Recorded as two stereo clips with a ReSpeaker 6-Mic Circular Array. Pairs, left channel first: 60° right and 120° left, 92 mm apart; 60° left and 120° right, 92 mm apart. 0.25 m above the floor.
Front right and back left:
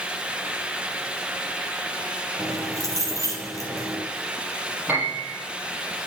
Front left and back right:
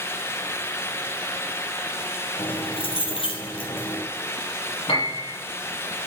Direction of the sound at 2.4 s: 65° left.